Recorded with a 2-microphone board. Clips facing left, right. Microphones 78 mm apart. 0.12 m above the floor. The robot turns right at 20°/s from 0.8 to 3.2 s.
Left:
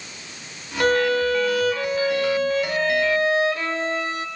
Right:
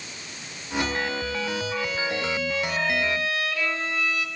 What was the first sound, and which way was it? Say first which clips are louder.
A violin: left 10 dB; 90° left.